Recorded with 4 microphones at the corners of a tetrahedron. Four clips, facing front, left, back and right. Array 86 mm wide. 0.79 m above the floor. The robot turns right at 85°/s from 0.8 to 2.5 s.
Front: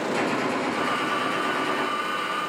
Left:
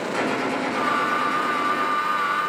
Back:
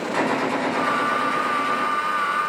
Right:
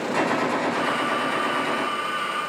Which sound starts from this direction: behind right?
A gunshot, at 0.1 s.